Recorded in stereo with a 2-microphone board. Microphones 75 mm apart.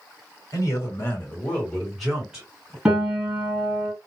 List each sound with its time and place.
0.5 s a man speaking: 45° left (ahead or behind), 2 m; by 2.8 s 15° right (ahead or behind), 2.5 m
2.9 s a piano: 10° right (ahead or behind), 2.5 m